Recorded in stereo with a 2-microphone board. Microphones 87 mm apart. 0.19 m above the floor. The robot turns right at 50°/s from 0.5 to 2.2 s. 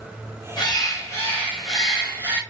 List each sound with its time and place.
0.6 s a bird: 120° left, 2 m; by 2.4 s 155° right, 2 m